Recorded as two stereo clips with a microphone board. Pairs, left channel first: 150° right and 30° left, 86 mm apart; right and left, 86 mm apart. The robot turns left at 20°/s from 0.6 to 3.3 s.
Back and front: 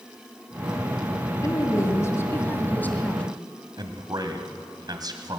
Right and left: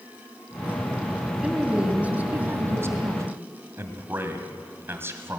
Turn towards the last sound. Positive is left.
turn(degrees=35)